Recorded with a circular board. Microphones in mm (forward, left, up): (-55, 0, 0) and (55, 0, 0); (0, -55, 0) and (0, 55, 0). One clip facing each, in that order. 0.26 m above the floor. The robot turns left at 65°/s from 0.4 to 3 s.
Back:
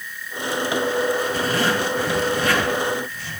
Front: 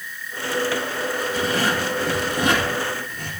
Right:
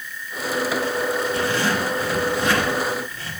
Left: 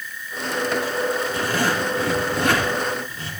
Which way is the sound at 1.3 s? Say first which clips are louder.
Back 1 dB, even; 145° left.